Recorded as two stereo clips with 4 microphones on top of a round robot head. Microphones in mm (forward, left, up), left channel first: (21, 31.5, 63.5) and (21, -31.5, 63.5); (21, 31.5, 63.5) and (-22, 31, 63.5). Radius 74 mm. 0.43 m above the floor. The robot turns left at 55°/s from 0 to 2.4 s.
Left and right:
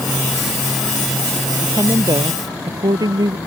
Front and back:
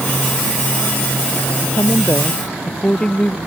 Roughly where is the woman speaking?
Ahead right.